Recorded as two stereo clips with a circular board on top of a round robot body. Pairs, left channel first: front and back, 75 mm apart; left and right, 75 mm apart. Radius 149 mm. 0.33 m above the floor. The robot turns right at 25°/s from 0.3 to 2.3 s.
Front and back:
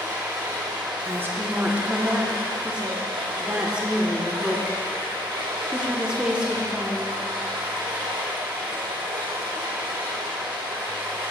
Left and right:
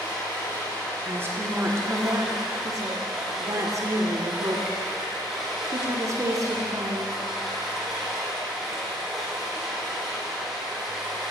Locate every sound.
0.0 s running water: 135° left, 2.5 m; by 11.3 s 175° right, 2.5 m
1.1 s a woman speaking: 140° right, 1.2 m; by 7.2 s 105° right, 1.2 m